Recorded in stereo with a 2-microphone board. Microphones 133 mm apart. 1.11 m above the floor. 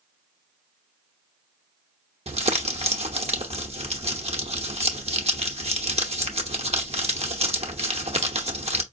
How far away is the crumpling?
About 0.9 m.